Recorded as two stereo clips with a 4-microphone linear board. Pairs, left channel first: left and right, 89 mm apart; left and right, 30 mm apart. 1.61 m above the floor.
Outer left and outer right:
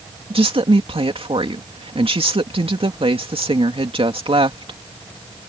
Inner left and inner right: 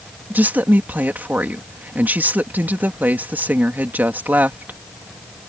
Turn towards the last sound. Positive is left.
turn(degrees=-75)  # may be behind; listen again after turning